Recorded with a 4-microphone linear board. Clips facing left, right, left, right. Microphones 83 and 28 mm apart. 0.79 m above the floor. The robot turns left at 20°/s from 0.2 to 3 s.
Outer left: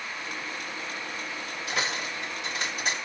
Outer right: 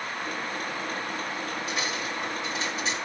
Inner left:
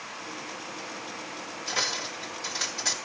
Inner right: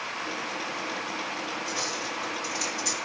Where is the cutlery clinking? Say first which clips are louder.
Even, inner left 1 dB; 75° left (ahead or behind), 3 m; by 2.9 s 50° left (ahead or behind), 3 m.